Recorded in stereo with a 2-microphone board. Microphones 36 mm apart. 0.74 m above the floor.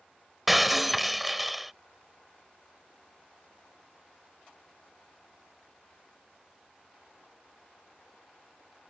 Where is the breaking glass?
5° right (ahead or behind).